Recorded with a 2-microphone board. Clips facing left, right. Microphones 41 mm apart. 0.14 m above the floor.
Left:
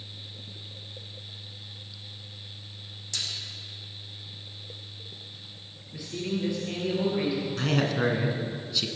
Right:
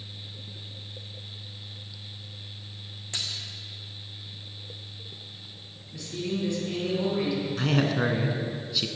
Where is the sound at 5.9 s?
15° left (ahead or behind), 3 m.